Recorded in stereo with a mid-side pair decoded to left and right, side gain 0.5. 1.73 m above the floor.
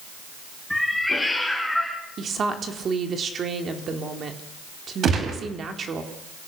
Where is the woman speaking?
45° right, 4 m.